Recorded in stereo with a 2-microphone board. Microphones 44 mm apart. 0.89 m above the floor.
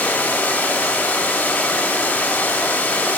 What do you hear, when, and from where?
0.0 s running water: 35° left (ahead or behind), 1.7 m